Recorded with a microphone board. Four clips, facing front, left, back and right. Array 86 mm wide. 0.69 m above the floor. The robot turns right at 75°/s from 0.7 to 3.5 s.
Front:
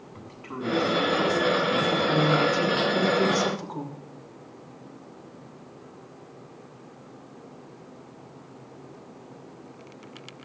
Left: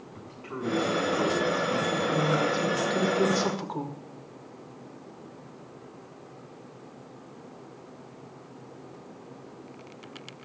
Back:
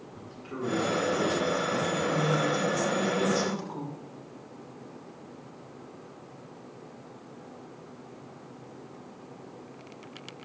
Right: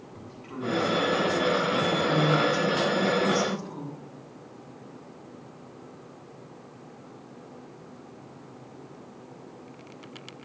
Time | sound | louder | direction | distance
0.1 | a man speaking | left 1 dB, front 1 dB | 5° left | 7 m
1.9 | a woman speaking | right 3 dB, front 5 dB | 35° right | 2 m